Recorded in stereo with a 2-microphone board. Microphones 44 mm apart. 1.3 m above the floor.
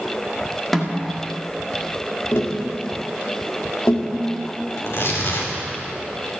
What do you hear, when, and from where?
0.7 s a snare drum: 5° left (ahead or behind), 1.7 m
2.3 s tapping: 80° left, 1.9 m
4.8 s tearing paper: 70° left (ahead or behind), 3.5 m